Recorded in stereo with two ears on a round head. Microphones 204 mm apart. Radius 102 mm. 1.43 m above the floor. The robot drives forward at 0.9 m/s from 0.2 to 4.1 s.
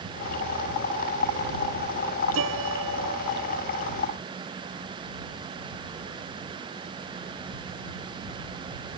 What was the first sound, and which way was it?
A piano, 65° right (ahead or behind).